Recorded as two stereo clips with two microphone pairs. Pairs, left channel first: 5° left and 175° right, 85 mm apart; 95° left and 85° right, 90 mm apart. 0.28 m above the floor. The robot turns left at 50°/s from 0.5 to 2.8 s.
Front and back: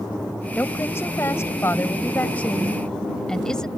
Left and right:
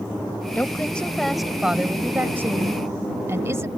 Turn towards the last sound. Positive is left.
turn(degrees=-70)